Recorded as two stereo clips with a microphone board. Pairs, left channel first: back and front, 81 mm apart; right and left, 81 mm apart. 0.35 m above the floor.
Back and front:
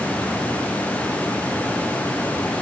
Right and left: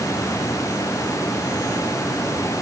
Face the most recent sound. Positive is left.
No sound to turn to.